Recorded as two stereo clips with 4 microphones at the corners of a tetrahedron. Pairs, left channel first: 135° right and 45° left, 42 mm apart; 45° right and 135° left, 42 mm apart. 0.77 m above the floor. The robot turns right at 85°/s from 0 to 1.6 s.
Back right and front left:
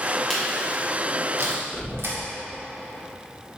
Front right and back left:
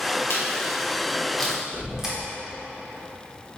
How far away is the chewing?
About 1.4 m.